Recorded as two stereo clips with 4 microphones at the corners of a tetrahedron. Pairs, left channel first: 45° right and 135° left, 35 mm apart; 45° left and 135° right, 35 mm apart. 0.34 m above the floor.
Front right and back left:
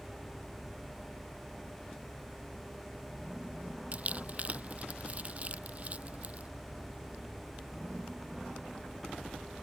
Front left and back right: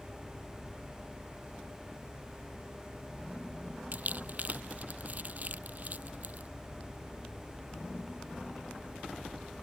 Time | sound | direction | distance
3.9 | crumpling | 175° right | ?